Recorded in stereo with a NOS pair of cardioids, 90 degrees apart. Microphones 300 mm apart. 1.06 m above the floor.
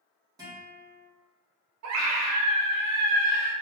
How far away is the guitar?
About 1.9 m.